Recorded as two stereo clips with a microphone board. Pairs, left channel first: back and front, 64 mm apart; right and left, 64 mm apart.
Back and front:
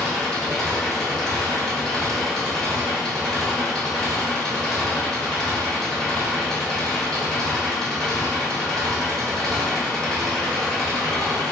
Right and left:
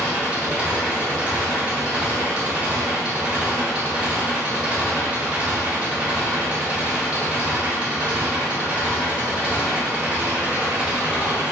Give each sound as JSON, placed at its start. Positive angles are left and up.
{"t": 0.0, "sound": "an engine running", "azimuth_deg": 110, "distance_m": 1.2}